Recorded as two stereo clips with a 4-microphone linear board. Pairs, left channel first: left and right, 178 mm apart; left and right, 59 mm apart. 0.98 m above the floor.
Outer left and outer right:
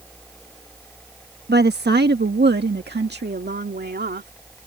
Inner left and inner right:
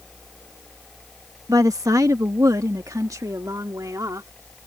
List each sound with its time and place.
1.5 s a woman speaking: 65° right (ahead or behind); by 4.3 s 70° right (ahead or behind)